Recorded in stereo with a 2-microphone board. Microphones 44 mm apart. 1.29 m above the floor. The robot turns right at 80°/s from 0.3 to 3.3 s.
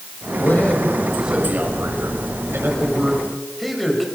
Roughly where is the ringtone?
I don't hear a ringtone.